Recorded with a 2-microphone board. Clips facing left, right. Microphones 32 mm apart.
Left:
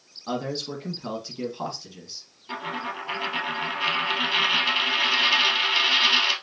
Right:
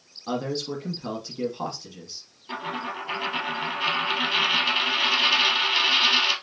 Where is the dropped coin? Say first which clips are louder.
Even; 5° left (ahead or behind), 1.2 m.